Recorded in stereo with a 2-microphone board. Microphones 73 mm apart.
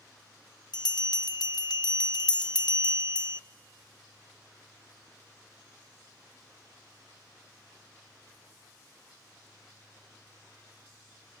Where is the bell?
80° left, 0.5 m.